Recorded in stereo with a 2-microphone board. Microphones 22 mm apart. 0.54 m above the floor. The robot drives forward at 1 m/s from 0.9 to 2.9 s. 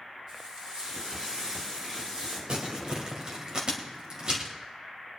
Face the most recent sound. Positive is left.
turn(degrees=-40)  # may be behind; listen again after turning